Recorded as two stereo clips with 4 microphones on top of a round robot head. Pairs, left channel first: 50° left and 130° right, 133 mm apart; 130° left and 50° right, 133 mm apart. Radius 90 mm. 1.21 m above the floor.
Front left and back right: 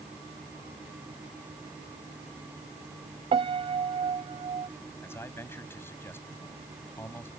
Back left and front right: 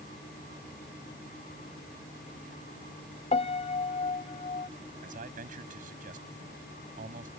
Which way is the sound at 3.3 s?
175° left.